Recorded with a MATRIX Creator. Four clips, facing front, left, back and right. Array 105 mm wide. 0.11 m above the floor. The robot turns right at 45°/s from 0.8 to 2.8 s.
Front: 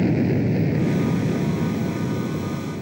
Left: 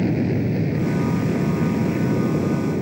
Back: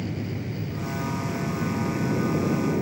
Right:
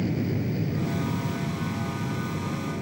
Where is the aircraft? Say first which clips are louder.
Left 7 dB, front 12 dB; 40° left; by 2.8 s 125° left.